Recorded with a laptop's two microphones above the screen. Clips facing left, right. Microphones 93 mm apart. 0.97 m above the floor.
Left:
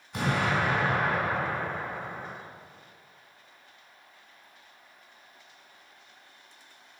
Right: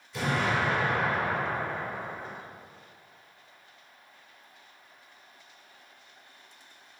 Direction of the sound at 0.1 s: 60° left (ahead or behind).